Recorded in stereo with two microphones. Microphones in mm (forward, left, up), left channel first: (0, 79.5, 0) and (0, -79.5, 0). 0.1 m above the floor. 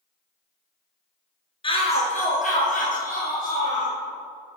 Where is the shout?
35° left (ahead or behind), 1.3 m; by 3.9 s 65° left (ahead or behind), 3.5 m.